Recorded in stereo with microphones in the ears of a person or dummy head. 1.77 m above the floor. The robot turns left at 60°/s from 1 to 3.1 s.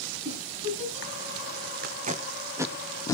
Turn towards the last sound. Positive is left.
turn(degrees=20)  # may be behind; listen again after turning